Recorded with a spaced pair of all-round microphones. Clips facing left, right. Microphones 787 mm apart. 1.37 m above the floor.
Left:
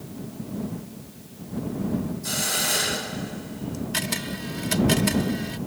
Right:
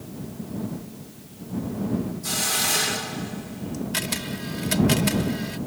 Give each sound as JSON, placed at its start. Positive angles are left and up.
{"t": 2.2, "sound": "a hiss", "side_deg": -40}
{"t": 3.9, "sound": "a camera shutter", "side_deg": 0}